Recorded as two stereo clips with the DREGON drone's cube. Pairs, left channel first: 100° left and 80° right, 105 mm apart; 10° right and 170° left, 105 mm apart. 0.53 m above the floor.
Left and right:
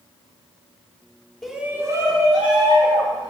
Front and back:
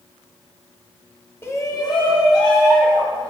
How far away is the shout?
About 0.9 m.